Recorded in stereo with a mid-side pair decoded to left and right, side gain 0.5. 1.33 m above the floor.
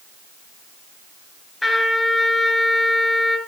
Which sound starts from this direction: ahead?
A trumpet, at 1.6 s.